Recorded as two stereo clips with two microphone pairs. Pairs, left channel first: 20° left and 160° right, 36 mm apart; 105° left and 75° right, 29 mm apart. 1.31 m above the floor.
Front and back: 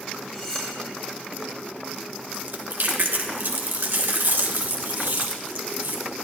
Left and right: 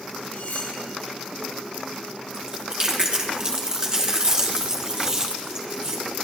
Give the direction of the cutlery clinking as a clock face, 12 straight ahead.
9 o'clock.